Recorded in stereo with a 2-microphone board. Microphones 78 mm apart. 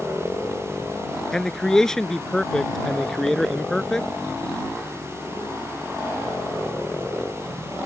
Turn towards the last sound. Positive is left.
turn(degrees=5)  # may be behind; listen again after turning